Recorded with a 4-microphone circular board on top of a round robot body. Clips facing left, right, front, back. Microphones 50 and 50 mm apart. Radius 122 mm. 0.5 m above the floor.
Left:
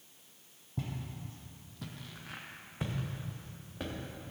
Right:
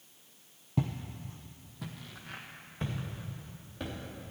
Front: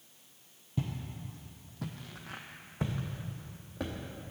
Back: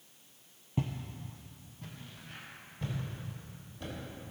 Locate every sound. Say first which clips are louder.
0.8 s footsteps: right 6 dB, back 1 dB; 115° right, 0.7 m; by 4.3 s 15° left, 3.5 m